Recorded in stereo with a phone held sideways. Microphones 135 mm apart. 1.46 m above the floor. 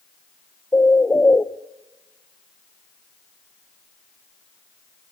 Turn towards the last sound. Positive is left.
turn(degrees=15)  # may be behind; listen again after turning